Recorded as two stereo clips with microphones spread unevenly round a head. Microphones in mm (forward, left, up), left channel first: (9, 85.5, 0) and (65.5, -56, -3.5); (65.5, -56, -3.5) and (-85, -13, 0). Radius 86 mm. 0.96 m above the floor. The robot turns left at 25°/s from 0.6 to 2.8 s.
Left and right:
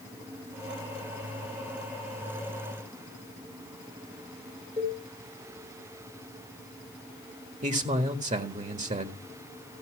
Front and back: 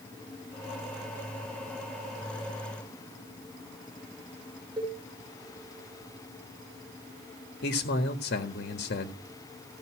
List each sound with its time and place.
4.8 s a cowbell: 135° right, 4.5 m
7.6 s a man speaking: 30° right, 1.6 m